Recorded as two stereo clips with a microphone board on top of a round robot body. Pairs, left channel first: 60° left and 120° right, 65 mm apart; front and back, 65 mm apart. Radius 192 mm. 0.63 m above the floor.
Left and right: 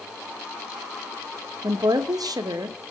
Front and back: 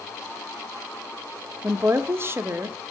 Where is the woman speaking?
130° right, 2.5 m.